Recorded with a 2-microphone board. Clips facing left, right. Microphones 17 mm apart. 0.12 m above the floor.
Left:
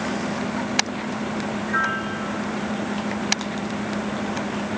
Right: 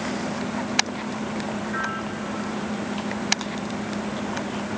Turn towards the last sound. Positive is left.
turn(degrees=40)  # may be behind; listen again after turning